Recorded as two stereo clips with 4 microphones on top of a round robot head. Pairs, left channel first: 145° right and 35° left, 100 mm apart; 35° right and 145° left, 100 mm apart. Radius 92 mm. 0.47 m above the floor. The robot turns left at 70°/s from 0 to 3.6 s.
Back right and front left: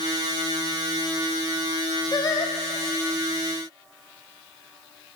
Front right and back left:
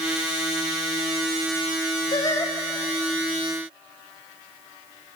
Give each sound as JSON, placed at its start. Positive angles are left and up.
{"t": 2.1, "sound": "singing", "azimuth_deg": -85, "distance_m": 1.8}